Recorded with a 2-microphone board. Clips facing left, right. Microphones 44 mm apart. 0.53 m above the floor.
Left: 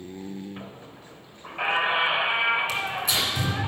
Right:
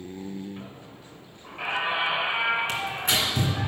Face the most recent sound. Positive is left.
turn(degrees=-45)  # may be behind; listen again after turning